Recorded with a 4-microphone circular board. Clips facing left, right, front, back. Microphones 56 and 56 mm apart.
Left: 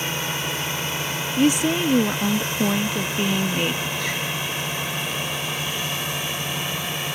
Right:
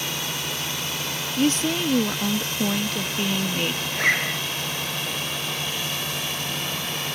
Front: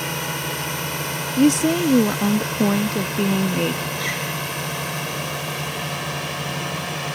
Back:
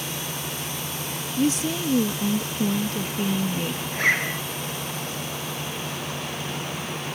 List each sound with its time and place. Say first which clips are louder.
0.0 s a drone: left 3 dB, front 6 dB; 25° left; by 7.2 s 15° left
1.4 s a woman speaking: left 3 dB, front 7 dB; 15° left
3.9 s a zipper: right 4 dB, back 3 dB; 135° right